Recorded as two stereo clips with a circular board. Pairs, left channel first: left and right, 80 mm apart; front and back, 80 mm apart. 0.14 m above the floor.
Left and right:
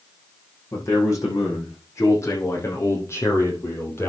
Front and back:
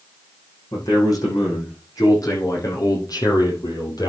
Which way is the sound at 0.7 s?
40° left.